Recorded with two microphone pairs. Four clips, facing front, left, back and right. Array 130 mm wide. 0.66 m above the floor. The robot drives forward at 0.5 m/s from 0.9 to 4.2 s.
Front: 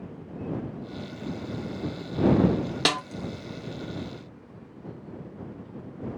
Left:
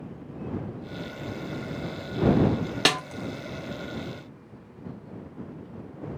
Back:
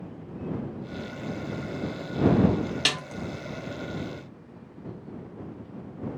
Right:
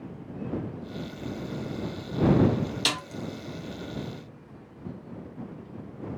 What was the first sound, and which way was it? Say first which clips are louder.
A snare drum: left 6 dB, front 5 dB; 55° left.